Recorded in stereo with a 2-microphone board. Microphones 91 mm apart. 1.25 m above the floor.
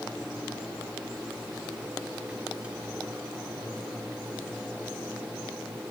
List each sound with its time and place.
Only background noise.